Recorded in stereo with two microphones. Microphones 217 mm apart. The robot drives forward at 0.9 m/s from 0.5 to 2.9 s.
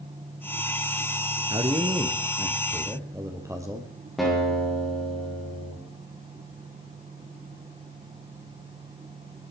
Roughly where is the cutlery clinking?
I don't hear cutlery clinking.